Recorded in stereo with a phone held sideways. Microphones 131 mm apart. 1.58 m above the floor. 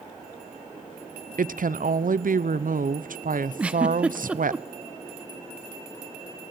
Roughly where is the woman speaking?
Right.